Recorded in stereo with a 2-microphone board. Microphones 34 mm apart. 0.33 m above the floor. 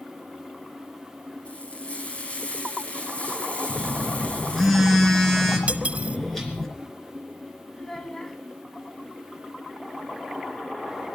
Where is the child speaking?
15° left (ahead or behind), 1.5 m.